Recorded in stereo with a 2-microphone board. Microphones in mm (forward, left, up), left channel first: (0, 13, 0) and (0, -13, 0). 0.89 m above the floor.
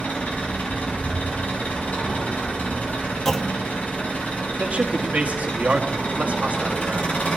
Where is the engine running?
85° left, 4.5 m.